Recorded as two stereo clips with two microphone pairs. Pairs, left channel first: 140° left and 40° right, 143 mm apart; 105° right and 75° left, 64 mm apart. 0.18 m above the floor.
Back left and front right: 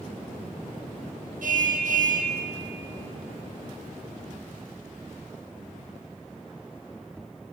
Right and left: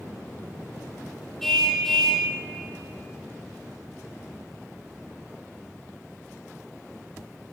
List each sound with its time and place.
1.4 s a car horn: 20° right, 2.5 m